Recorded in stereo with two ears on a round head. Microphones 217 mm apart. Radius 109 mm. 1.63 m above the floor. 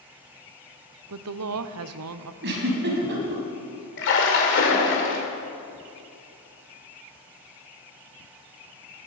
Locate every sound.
1.1 s a woman speaking: 65° right (ahead or behind), 0.6 m
2.4 s a giggle: 50° right (ahead or behind), 3 m
4.0 s a splash: 55° left (ahead or behind), 2.5 m